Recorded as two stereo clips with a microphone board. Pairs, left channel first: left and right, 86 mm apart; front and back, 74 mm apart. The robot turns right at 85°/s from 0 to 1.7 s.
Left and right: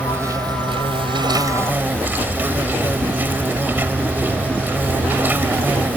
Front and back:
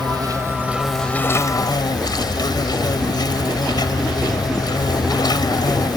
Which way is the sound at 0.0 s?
170° right.